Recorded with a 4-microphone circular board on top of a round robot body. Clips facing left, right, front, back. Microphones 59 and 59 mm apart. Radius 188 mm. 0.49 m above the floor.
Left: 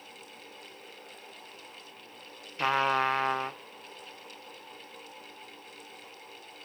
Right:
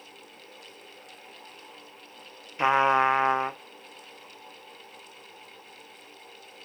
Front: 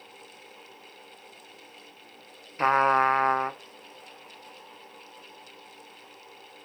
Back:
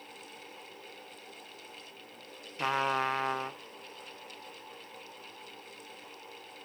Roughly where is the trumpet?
Ahead right.